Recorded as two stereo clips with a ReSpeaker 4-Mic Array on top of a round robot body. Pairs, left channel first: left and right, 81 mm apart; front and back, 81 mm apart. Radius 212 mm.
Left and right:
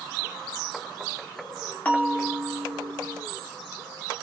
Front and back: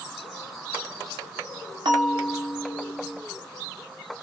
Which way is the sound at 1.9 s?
160° left.